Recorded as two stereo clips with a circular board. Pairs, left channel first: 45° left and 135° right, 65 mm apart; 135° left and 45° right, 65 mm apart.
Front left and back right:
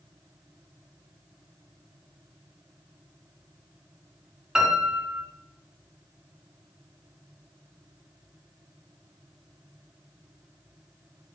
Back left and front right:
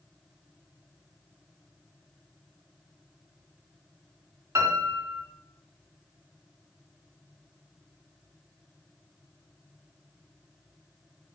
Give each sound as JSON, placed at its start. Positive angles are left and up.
{"t": 4.5, "sound": "a piano", "azimuth_deg": -60, "distance_m": 2.0}